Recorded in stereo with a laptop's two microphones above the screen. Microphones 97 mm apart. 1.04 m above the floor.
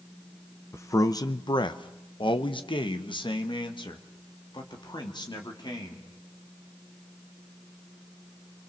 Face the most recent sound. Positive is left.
turn(degrees=45)  # may be behind; listen again after turning